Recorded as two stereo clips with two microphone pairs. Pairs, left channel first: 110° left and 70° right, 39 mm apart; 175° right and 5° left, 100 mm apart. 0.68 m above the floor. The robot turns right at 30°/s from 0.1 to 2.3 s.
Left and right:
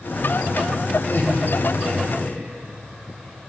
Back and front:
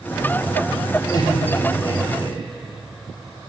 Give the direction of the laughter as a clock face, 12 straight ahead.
8 o'clock.